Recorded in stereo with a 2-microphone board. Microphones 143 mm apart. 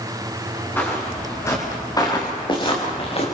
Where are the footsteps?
15° left (ahead or behind), 6.5 m; by 3.3 s 45° left (ahead or behind), 5 m.